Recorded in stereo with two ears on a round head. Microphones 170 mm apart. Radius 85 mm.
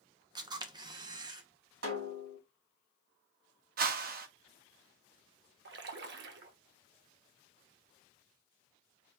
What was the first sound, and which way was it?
A camera shutter, 20° right (ahead or behind).